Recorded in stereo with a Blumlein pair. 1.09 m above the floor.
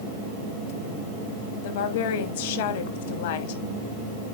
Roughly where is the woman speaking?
Ahead left.